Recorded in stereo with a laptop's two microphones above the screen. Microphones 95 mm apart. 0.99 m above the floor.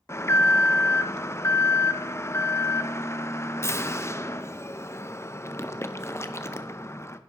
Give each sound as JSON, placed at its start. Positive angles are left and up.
{"t": 0.1, "sound": "an alarm", "side_deg": 30, "distance_m": 0.6}